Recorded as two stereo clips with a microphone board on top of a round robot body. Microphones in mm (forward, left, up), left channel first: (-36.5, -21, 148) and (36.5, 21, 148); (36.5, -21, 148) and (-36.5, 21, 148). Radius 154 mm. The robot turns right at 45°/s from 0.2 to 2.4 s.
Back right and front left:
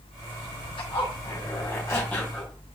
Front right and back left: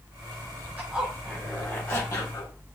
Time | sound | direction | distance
0.8 | a zipper | 140° right | 1.6 m